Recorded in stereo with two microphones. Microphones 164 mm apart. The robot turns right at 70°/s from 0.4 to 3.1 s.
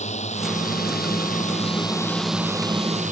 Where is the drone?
45° left (ahead or behind); by 3.1 s 50° right (ahead or behind).